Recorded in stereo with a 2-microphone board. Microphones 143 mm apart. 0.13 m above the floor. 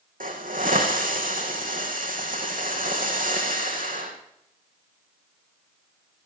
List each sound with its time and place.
0.2 s a hiss: 80° right, 4 m